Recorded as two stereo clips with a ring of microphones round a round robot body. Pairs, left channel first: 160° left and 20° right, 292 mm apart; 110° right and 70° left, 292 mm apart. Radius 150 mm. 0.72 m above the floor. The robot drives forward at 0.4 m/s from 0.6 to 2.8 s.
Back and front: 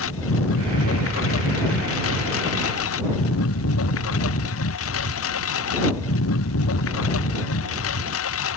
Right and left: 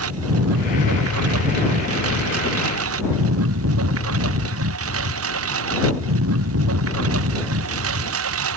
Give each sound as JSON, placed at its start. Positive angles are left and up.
{"t": 0.0, "sound": "a lawn mower", "azimuth_deg": 110}